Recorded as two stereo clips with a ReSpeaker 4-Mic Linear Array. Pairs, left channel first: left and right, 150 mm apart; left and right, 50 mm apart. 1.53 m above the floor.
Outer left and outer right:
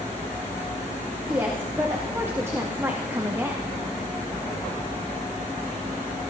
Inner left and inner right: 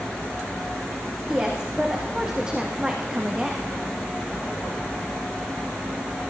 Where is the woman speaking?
15° right (ahead or behind), 2 m.